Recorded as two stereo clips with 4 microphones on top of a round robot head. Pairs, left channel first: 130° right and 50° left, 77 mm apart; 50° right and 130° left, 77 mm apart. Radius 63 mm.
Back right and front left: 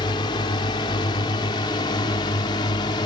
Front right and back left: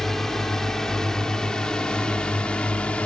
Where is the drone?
140° right; by 3.1 s 125° right.